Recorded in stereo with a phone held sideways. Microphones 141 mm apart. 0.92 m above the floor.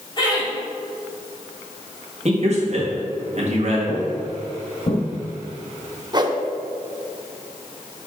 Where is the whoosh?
30° right (ahead or behind), 0.5 m.